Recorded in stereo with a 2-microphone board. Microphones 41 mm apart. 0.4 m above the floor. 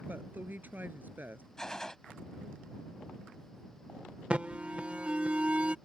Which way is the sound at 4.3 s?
30° right (ahead or behind).